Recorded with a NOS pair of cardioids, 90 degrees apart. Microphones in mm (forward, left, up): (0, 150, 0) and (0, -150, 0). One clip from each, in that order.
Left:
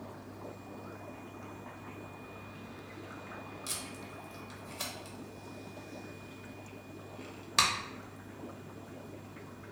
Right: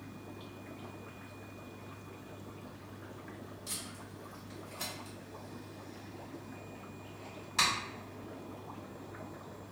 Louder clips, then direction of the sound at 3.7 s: Left 2 dB; 60° left.